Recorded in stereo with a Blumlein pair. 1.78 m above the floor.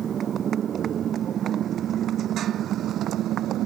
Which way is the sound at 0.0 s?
25° right.